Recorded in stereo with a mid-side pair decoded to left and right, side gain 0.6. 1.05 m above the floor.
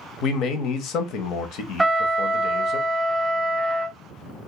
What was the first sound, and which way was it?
A man speaking, 60° left.